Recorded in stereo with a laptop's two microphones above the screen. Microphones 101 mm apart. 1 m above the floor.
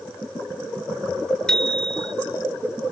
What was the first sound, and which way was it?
A bicycle bell, 10° left (ahead or behind).